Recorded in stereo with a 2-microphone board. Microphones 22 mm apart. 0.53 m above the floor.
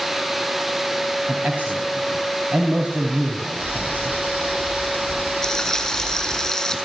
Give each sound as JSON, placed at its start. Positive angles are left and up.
{"t": 1.3, "sound": "a man speaking", "side_deg": -75, "distance_m": 4.0}
{"t": 3.6, "sound": "boiling", "side_deg": -85, "distance_m": 9.5}
{"t": 5.4, "sound": "frying", "side_deg": 15, "distance_m": 7.0}